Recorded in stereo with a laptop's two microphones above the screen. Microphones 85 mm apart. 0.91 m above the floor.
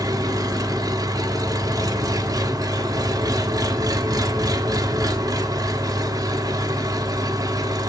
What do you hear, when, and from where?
0.0 s an engine running: 50° right (ahead or behind), 1.2 m